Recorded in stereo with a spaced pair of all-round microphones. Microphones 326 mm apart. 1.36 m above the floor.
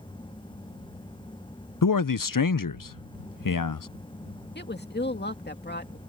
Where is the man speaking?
75° left (ahead or behind).